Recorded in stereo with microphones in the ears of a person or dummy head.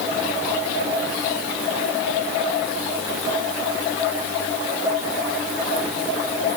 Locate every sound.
Only background noise.